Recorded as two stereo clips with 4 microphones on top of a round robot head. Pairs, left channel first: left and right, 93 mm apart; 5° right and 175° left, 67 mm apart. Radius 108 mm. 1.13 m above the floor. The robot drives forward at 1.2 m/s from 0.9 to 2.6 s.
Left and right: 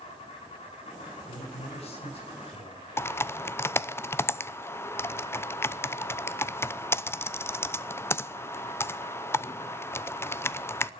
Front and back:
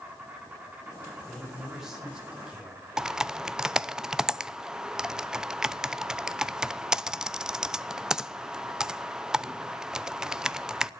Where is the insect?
105° left, 7.5 m; by 11.0 s 120° left, 8 m.